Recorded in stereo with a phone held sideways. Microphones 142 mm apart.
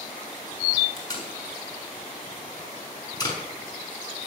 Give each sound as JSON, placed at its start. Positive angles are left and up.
{"t": 1.0, "sound": "tape being pulled", "side_deg": 25, "distance_m": 5.5}